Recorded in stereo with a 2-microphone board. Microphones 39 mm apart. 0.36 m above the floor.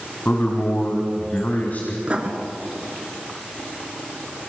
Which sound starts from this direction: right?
Writing, at 2.0 s.